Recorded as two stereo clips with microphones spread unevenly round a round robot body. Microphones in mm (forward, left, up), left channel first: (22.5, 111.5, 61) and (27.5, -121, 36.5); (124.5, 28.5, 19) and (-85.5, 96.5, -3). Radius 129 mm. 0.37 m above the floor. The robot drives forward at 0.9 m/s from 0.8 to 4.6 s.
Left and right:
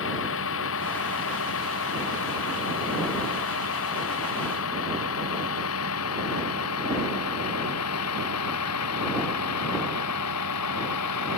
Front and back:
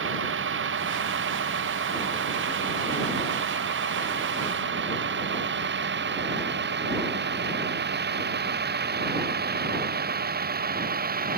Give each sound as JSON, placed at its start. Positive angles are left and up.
{"t": 0.0, "sound": "a vehicle", "azimuth_deg": 130}